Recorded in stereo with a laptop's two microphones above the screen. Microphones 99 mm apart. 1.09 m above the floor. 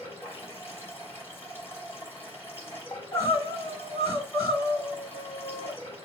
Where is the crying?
35° left (ahead or behind), 2 m.